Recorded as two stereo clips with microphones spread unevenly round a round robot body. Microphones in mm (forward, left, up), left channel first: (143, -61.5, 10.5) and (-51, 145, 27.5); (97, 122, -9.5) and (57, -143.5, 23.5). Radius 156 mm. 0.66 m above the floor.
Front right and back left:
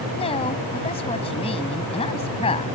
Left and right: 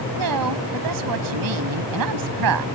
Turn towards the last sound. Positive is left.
turn(degrees=-120)